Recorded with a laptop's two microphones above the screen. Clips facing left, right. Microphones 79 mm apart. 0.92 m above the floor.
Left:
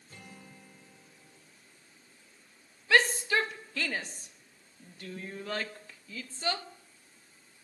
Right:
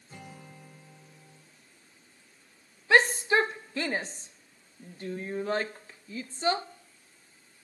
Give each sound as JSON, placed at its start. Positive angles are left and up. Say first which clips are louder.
{"t": 0.1, "sound": "a guitar", "louder": "right 4 dB", "side_deg": -15, "distance_m": 3.0}
{"t": 2.9, "sound": "a shout", "louder": "right 3 dB", "side_deg": -25, "distance_m": 0.9}